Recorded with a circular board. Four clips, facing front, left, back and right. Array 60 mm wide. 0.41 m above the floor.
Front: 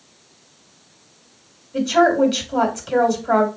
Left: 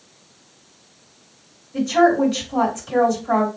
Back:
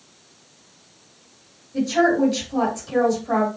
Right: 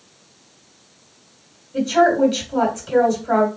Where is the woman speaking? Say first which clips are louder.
Even, front 3 dB; 10° right, 2.5 m.